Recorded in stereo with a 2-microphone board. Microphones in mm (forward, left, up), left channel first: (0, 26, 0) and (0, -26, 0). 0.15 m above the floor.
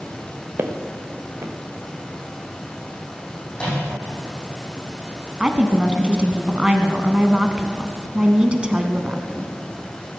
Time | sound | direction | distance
0.6 | footsteps | 50° right (ahead or behind) | 1.7 m
3.5 | a microwave | 20° left (ahead or behind) | 6.5 m
5.4 | a woman speaking | 20° right (ahead or behind) | 1.2 m